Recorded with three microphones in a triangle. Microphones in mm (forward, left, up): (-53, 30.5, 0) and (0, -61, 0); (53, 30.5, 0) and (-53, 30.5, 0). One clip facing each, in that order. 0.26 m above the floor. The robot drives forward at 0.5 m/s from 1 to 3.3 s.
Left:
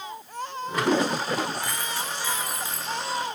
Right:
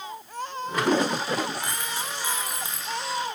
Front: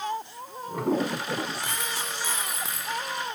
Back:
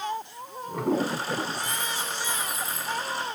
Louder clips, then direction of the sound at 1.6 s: Left 1 dB, back 1 dB; 10° left.